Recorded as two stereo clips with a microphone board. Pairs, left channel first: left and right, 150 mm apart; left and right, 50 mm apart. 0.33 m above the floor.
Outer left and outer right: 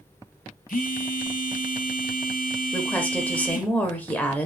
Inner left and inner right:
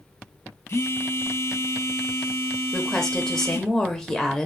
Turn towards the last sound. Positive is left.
turn(degrees=10)  # may be behind; listen again after turning